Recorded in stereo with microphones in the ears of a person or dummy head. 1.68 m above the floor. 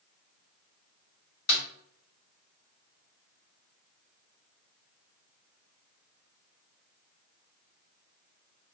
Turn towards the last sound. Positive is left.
turn(degrees=50)  # may be behind; listen again after turning